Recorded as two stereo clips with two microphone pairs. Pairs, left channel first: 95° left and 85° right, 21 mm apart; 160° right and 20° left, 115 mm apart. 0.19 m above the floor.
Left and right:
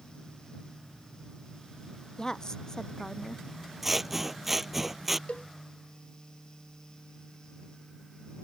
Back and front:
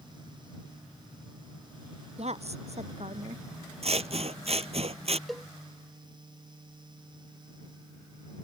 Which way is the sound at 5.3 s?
110° left.